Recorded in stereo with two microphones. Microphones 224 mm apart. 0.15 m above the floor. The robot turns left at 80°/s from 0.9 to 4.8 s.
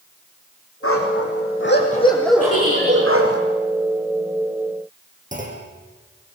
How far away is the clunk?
About 4.5 m.